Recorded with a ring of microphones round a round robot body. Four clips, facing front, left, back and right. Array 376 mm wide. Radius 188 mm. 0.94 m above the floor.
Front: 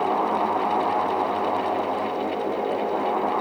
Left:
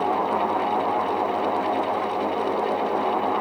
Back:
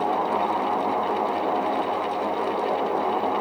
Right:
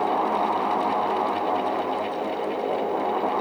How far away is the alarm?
No alarm in this recording.